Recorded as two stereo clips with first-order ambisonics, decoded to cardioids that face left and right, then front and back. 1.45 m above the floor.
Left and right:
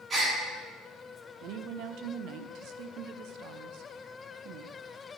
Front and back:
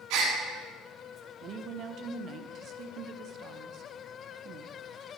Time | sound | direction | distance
0.1 | a gasp | 160° right | 1.7 m
1.4 | a woman speaking | 130° right | 0.6 m